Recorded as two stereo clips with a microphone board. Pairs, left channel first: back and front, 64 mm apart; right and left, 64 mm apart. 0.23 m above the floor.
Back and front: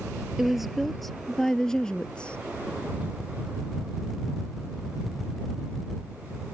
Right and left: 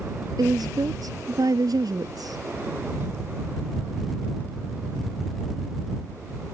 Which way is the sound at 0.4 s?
85° left.